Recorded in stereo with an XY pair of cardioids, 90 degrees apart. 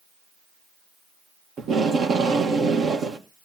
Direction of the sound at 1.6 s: 70° right.